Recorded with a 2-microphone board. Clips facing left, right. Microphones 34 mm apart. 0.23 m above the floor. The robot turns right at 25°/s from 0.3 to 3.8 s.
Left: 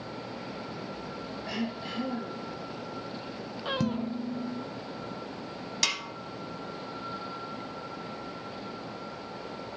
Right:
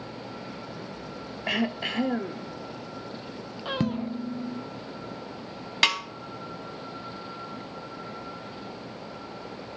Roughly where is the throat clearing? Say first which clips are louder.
Right 8 dB; right.